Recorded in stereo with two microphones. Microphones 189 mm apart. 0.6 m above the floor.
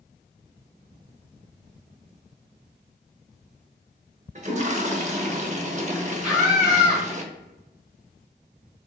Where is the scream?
5° right (ahead or behind), 0.9 m.